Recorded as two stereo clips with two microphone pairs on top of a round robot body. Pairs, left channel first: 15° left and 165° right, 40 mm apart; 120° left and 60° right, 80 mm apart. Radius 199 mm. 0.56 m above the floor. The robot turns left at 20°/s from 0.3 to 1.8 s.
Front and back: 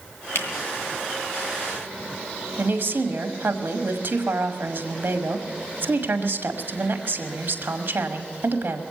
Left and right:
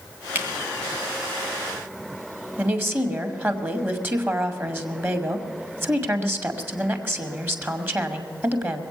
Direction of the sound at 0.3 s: 5° left.